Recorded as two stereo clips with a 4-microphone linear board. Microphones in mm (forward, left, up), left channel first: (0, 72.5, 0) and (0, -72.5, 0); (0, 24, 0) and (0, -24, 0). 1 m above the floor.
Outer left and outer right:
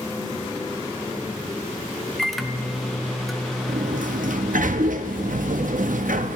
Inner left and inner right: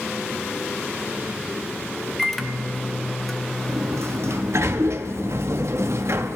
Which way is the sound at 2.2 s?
Centre (ahead or behind).